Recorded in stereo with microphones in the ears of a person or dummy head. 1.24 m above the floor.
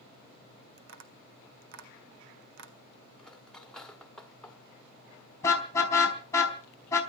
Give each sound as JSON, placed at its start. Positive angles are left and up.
{"t": 0.8, "sound": "tapping", "side_deg": -70, "distance_m": 1.9}
{"t": 3.2, "sound": "cutlery clinking", "side_deg": 0, "distance_m": 1.4}
{"t": 5.4, "sound": "a car horn", "side_deg": 25, "distance_m": 4.0}